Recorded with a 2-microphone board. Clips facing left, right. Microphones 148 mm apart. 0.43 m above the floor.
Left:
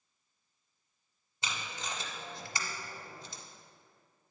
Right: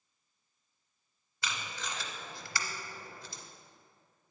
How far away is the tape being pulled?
About 0.7 m.